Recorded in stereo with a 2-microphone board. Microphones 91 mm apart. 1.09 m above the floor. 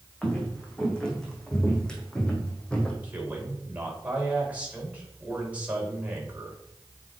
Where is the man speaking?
20° right (ahead or behind), 4.5 m.